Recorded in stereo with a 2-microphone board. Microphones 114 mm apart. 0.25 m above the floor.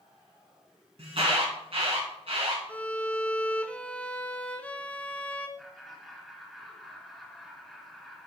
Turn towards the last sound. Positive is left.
turn(degrees=0)  # may be behind; listen again after turning